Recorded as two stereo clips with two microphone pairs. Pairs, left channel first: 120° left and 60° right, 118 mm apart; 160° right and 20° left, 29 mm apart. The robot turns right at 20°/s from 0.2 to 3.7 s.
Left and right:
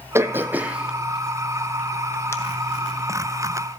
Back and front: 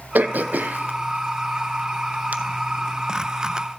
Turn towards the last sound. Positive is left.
turn(degrees=80)